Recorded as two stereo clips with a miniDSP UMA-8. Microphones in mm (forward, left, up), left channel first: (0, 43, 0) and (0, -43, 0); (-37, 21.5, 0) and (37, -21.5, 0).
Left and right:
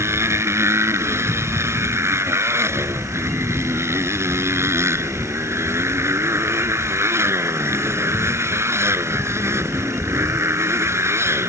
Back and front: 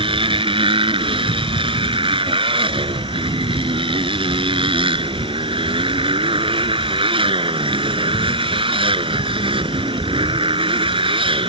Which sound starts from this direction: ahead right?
A motorcycle, at 0.0 s.